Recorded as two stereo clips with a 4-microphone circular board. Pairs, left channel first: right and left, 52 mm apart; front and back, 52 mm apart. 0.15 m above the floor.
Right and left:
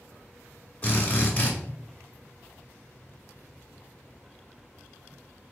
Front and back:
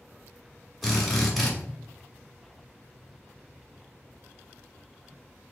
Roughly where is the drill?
Right.